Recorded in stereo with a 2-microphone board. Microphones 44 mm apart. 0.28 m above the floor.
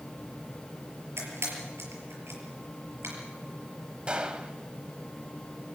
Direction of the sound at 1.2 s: 65° right (ahead or behind).